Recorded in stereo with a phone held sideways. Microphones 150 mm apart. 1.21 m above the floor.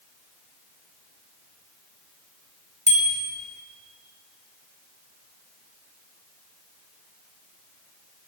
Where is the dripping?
No dripping in this recording.